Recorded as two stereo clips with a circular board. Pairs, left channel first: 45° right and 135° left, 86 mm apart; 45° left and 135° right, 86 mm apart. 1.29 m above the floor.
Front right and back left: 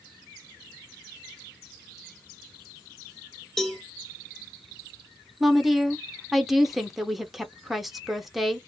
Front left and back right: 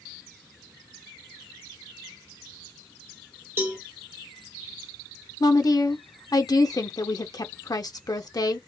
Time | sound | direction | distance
3.6 | a cowbell | 120° right | 1.0 m
5.4 | a woman speaking | 50° left | 0.7 m